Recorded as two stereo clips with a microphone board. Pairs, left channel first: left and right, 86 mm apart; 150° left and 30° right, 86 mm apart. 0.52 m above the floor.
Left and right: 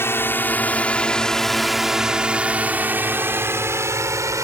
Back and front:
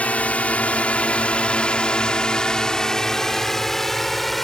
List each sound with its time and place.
0.0 s a drone: 95° left; by 4.5 s 120° right